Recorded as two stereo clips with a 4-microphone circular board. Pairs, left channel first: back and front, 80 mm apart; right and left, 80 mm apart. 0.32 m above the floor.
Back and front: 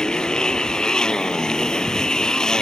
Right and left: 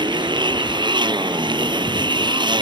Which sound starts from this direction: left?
A motorcycle, at 0.0 s.